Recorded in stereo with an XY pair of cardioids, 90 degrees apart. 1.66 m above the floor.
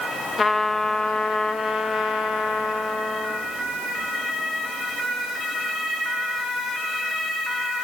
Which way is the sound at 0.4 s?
40° left.